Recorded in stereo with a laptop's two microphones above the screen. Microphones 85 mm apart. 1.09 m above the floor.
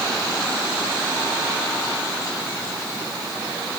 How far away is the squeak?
No squeak in this recording.